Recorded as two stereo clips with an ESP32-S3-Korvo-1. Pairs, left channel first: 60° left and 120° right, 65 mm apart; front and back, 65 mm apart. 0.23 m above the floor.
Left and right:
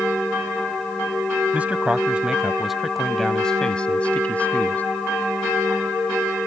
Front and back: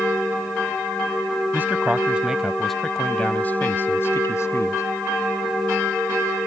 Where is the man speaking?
165° right; by 4.8 s straight ahead.